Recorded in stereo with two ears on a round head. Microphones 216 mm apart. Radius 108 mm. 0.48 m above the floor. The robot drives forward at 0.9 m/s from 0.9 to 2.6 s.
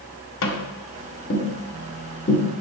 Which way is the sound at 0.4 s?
60° left (ahead or behind).